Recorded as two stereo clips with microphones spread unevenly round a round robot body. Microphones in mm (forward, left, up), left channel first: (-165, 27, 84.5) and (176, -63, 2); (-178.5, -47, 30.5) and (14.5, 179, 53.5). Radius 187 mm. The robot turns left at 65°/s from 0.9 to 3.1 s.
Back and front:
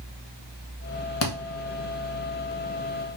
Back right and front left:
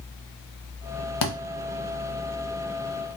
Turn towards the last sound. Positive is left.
turn(degrees=100)